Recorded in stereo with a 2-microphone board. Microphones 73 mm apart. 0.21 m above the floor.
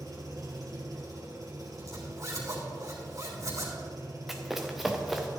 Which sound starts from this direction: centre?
Running footsteps, at 4.3 s.